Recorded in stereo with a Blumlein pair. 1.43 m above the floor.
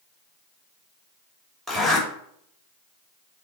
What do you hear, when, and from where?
1.7 s a zipper: straight ahead, 2.5 m